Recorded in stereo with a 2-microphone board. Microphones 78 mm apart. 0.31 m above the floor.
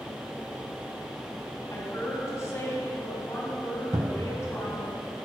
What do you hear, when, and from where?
1.7 s a woman speaking: 40° left (ahead or behind), 3 m
3.9 s a cupboard door: 60° right (ahead or behind), 0.8 m